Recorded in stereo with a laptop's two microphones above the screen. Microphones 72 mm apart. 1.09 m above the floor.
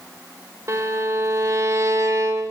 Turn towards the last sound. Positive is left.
turn(degrees=-45)  # may be behind; listen again after turning